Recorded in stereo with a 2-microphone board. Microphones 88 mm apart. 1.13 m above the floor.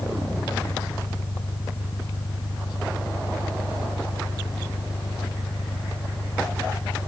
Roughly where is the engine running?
Left.